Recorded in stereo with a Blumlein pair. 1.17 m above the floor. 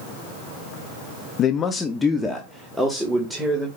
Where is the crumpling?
I don't hear crumpling.